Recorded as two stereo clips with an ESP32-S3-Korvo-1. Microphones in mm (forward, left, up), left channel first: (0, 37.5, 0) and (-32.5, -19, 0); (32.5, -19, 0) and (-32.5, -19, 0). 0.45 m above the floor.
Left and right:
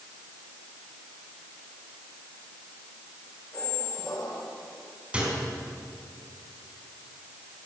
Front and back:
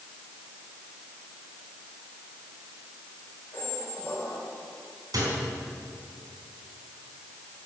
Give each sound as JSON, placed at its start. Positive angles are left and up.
{"t": 3.5, "sound": "a squeak", "azimuth_deg": 65, "distance_m": 4.5}
{"t": 5.1, "sound": "a microwave", "azimuth_deg": 165, "distance_m": 4.0}